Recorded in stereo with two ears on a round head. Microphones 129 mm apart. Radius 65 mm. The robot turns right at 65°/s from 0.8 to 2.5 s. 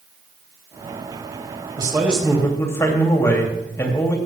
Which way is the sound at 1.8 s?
30° right.